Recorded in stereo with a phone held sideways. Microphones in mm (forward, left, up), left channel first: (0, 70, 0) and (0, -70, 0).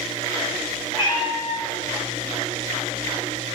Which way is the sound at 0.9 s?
30° left (ahead or behind).